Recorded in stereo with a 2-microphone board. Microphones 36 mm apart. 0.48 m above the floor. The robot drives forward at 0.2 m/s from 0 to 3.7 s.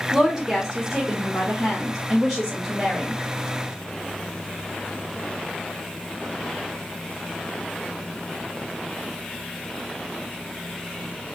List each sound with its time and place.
0.1 s a woman speaking: 15° right (ahead or behind), 1.2 m; by 3.2 s 10° right (ahead or behind), 1.7 m